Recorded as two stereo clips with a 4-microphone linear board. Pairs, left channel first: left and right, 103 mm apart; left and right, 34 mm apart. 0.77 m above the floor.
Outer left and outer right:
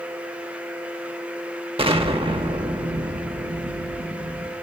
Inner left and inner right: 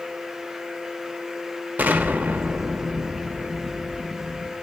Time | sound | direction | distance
1.8 | an explosion | 65° right (ahead or behind) | 0.7 m